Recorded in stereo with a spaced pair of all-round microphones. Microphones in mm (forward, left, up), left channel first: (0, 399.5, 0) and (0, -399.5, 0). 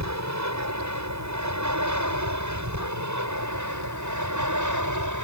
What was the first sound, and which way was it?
An aircraft, 20° right (ahead or behind).